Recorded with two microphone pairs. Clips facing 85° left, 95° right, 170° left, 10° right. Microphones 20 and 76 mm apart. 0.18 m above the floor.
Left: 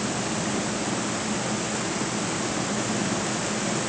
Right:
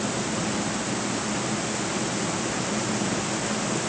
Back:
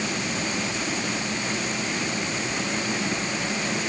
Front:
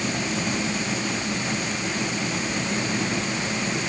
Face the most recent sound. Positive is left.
No sound to turn to.